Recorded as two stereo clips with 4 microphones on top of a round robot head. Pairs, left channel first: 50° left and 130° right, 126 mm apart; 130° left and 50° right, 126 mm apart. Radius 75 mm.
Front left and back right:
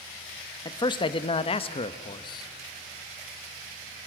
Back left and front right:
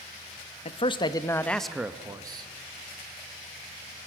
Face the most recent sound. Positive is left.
turn(degrees=-5)